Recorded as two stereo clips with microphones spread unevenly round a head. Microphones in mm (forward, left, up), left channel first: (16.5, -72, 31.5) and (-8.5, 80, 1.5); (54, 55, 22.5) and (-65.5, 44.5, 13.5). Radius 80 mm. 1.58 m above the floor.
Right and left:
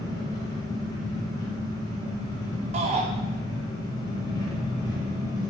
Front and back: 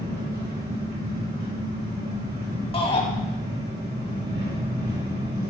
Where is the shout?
45° left, 3.5 m.